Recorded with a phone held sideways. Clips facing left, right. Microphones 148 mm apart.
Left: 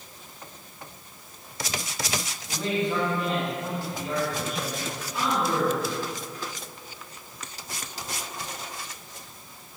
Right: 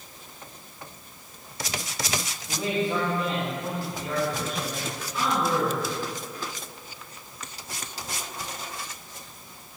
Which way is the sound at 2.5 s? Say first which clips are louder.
Even; 10° right (ahead or behind).